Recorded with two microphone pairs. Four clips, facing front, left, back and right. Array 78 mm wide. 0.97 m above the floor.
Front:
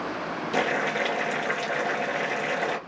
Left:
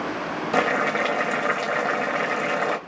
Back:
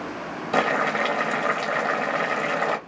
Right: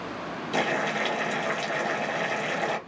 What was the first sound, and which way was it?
Boiling, 135° left.